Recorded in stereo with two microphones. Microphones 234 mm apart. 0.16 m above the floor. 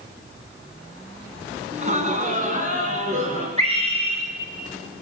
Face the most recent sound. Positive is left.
turn(degrees=-30)  # may be behind; listen again after turning